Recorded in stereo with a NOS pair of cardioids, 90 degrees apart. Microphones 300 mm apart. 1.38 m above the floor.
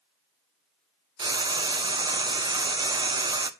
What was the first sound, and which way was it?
Frying, 15° right.